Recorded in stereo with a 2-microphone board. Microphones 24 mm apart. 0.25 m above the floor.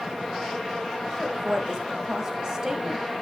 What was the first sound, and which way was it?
A woman speaking, 25° right (ahead or behind).